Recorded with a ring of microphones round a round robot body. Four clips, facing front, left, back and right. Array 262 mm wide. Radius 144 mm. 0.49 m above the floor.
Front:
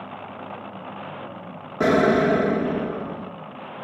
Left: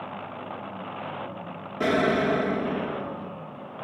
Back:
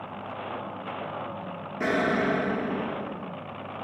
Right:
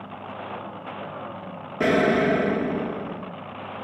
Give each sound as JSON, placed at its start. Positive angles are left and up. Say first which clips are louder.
{"t": 1.8, "sound": "an explosion", "louder": "right 3 dB, front 8 dB", "azimuth_deg": -25, "distance_m": 0.6}